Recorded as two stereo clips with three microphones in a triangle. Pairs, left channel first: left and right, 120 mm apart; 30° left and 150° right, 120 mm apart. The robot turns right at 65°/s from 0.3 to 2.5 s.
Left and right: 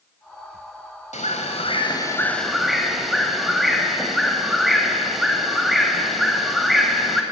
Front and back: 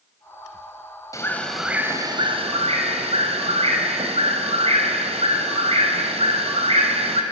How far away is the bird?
About 3 m.